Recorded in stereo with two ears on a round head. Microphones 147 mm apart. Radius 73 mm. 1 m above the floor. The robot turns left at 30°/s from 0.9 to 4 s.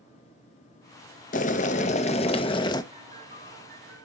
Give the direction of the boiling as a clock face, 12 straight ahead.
9 o'clock.